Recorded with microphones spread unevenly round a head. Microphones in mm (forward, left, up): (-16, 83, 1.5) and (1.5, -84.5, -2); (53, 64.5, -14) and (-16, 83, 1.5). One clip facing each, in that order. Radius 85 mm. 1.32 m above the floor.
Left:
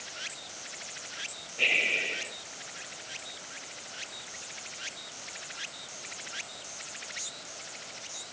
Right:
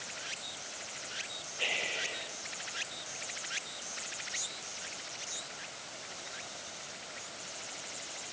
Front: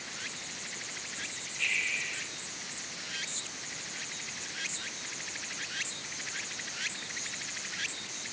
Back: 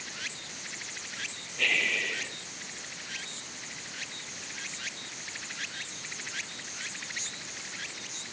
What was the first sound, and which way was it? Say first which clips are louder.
Breathing: left 4 dB, back 5 dB; 155° left.